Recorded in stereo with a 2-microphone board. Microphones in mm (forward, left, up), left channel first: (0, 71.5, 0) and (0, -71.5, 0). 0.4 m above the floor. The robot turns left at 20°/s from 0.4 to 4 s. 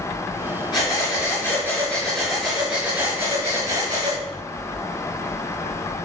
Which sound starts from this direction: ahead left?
Breathing, at 0.7 s.